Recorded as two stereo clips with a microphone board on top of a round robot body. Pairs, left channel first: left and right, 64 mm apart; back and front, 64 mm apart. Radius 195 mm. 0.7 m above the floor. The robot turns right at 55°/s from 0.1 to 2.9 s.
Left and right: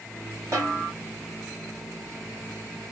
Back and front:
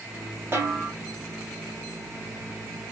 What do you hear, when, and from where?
0.5 s a snare drum: 50° right, 4 m; by 0.9 s 30° right, 4 m